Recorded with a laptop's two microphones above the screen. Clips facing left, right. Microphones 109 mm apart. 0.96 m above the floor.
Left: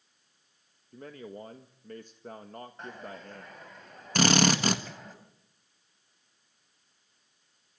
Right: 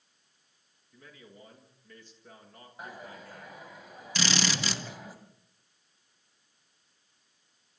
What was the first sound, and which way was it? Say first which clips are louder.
A man speaking: left 10 dB; 45° left (ahead or behind).